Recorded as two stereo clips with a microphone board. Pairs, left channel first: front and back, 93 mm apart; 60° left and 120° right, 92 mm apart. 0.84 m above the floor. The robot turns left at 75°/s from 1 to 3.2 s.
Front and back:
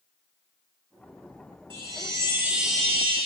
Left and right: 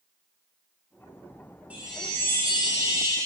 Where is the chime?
170° left, 3 m; by 3.2 s 60° left, 3 m.